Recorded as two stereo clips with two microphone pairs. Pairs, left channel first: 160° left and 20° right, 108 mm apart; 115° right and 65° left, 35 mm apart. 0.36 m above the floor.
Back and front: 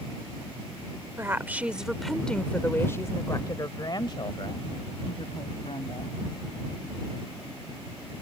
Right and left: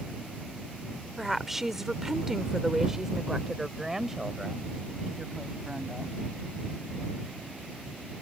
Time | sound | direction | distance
1.2 | a woman speaking | 5° right | ?